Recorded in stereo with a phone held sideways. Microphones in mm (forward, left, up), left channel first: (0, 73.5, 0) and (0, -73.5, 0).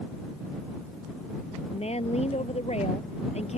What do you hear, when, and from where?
1.7 s a woman speaking: 45° left (ahead or behind)